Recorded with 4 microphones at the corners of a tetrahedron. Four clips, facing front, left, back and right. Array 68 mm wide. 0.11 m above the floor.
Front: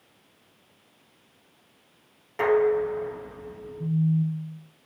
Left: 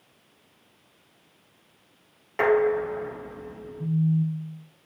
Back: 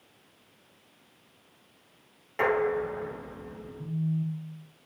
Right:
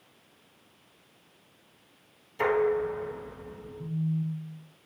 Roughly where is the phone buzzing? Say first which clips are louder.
Left 7 dB, front 6 dB; ahead left.